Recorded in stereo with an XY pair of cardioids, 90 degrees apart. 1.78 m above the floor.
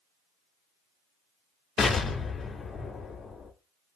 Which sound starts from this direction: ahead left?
An explosion, at 1.8 s.